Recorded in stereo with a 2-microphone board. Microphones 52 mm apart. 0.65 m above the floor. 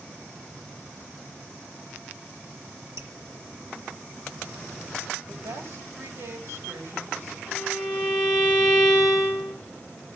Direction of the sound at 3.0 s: 60° right (ahead or behind).